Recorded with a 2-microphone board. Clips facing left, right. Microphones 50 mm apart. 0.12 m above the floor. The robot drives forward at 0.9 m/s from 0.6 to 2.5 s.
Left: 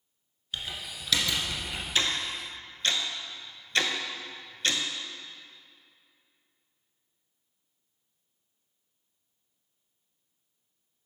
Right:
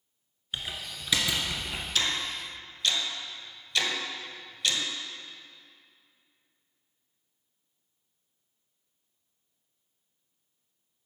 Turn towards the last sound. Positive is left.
turn(degrees=35)  # may be behind; listen again after turning